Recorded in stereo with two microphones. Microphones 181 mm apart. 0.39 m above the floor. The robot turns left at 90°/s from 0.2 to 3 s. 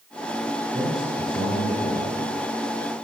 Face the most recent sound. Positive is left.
turn(degrees=0)